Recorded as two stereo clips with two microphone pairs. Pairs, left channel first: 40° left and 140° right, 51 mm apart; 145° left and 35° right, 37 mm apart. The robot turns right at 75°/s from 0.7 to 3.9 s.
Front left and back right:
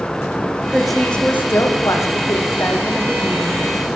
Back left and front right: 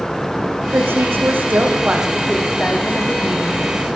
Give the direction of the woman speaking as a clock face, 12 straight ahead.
2 o'clock.